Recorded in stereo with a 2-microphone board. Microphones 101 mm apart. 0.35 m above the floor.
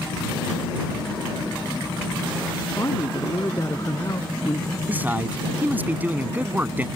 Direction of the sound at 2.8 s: 35° left (ahead or behind).